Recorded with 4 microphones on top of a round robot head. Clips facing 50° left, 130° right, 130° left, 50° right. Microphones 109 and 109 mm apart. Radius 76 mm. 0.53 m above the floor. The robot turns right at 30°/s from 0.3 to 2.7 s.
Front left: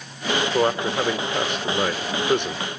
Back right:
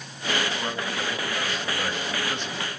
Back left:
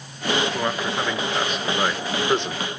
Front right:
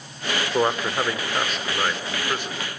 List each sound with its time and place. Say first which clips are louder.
0.5 s a man speaking: front left 9 dB, front right 3 dB; 10° left, 1.7 m; by 2.8 s 75° left, 1.7 m